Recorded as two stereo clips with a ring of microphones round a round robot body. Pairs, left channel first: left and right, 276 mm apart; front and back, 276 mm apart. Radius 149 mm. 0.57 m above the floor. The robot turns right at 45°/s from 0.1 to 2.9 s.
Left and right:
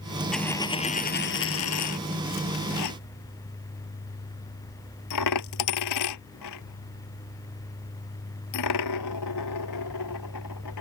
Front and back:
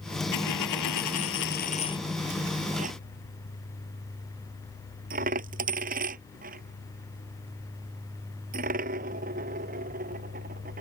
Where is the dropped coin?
Straight ahead; by 10.8 s 120° left.